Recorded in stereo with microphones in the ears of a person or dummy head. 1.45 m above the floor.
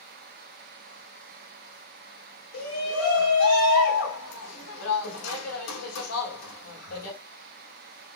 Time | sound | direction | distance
2.5 | a shout | 85° left | 4 m